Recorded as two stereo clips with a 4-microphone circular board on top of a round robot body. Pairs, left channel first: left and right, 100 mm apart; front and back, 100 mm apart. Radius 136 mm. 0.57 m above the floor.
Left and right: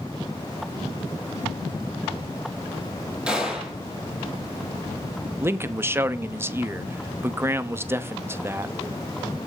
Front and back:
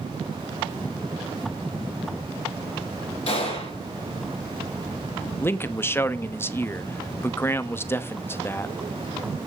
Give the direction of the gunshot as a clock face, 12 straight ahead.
12 o'clock.